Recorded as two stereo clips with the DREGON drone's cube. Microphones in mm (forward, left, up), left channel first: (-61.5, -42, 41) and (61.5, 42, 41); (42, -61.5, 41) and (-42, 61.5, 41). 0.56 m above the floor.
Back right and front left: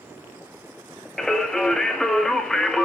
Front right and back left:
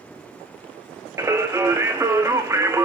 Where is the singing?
135° left, 1.0 m.